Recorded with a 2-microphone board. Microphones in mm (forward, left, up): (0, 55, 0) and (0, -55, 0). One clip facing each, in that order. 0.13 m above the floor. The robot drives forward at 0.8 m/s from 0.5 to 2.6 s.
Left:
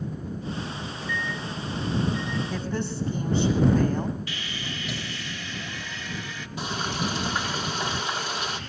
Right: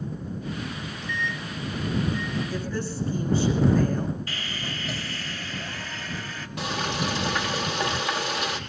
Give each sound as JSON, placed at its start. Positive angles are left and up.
{"t": 0.7, "sound": "a microwave", "side_deg": 5, "distance_m": 1.9}
{"t": 2.5, "sound": "a woman speaking", "side_deg": 25, "distance_m": 6.0}
{"t": 4.3, "sound": "sawing", "side_deg": -40, "distance_m": 2.5}
{"t": 6.6, "sound": "frying", "side_deg": -60, "distance_m": 4.0}